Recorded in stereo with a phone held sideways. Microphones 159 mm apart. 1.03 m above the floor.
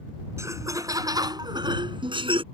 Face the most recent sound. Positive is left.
turn(degrees=-35)  # may be behind; listen again after turning